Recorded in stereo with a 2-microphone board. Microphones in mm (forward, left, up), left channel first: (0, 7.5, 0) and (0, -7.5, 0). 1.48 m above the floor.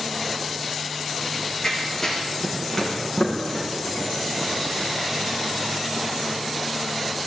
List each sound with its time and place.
1.2 s running footsteps: 25° left (ahead or behind), 6 m; by 6.1 s 5° right (ahead or behind), 4.5 m